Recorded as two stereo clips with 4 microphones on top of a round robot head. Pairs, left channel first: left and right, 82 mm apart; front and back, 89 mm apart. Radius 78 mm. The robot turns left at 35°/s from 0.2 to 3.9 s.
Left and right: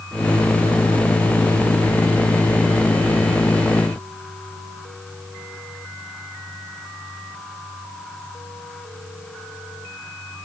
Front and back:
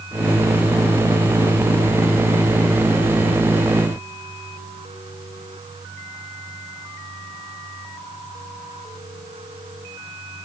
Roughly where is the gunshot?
No gunshot in this recording.